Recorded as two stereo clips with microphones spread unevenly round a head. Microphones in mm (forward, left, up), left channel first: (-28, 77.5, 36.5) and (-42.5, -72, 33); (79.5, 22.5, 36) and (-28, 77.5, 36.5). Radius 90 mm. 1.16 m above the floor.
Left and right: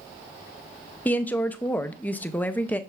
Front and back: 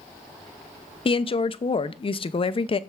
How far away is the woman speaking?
About 0.5 m.